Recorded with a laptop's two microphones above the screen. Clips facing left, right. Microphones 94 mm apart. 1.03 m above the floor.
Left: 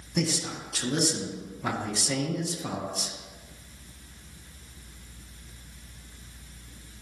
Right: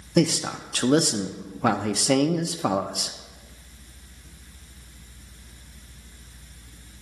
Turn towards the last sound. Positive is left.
turn(degrees=-60)  # may be behind; listen again after turning